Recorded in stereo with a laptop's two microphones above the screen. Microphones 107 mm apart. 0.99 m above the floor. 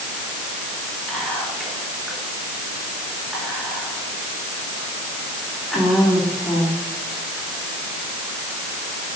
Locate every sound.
1.1 s whispering: centre (ahead or behind), 2.5 m